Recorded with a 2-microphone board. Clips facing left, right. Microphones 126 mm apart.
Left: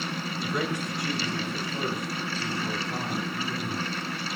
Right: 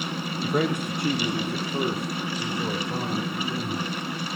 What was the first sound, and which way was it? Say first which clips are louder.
A man speaking: right 6 dB; 40° right (ahead or behind).